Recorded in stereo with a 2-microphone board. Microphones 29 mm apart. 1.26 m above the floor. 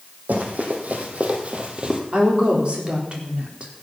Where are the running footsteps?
70° right (ahead or behind), 3.5 m; by 2.0 s 25° right (ahead or behind), 2.5 m.